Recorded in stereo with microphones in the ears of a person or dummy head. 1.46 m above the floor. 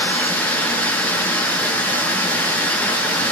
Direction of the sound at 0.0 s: 15° left (ahead or behind).